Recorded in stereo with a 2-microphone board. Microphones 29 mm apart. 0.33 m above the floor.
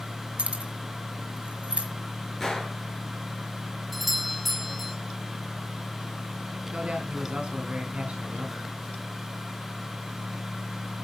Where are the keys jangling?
50° right (ahead or behind), 1.2 m; by 1.9 s 45° right (ahead or behind), 1.7 m.